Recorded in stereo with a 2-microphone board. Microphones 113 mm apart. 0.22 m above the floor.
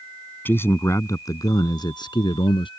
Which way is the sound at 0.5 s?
20° left (ahead or behind).